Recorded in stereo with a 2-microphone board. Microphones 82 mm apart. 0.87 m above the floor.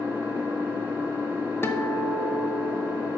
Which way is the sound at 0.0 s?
25° right (ahead or behind).